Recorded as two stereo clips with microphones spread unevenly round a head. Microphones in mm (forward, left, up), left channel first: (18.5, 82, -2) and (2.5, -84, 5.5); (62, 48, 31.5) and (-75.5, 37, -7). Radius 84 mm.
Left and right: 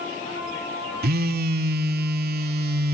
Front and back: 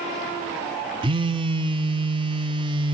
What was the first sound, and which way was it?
A phone buzzing, 130° right.